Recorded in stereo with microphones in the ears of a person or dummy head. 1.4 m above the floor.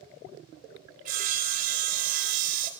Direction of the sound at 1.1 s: 45° right (ahead or behind).